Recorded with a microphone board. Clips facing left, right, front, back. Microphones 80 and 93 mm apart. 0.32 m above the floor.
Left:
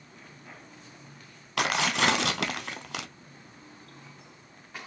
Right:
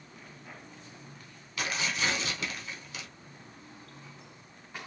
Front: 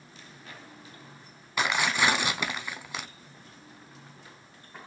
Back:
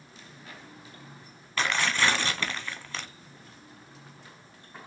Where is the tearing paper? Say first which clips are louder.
Left 7 dB, front 1 dB; 75° left, 0.5 m.